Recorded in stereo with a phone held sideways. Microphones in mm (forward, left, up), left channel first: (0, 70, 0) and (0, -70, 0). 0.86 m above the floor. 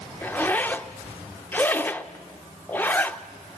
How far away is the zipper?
About 0.6 m.